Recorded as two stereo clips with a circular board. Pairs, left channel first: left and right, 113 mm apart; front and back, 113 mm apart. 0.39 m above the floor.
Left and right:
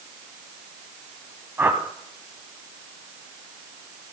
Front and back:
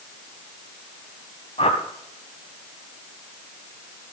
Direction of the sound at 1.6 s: 20° right.